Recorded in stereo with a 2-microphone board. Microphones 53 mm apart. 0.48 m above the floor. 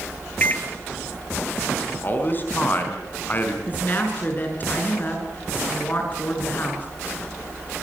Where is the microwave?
30° left (ahead or behind), 1.2 m.